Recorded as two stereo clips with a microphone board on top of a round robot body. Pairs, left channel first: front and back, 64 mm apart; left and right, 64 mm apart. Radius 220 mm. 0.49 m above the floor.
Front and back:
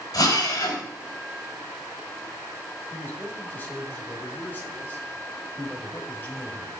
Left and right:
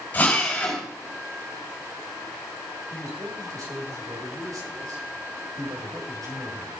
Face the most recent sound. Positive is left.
turn(degrees=-60)